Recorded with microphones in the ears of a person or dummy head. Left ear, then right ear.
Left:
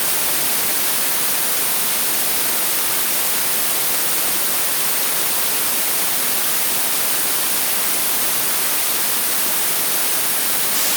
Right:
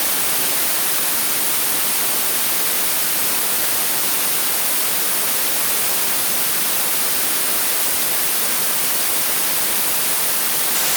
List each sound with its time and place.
Only background noise.